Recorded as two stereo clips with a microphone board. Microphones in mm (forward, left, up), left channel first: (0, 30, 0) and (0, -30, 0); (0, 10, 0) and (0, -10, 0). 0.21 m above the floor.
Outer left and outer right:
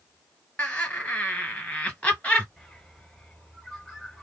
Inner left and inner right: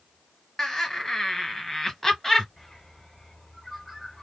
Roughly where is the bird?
Centre.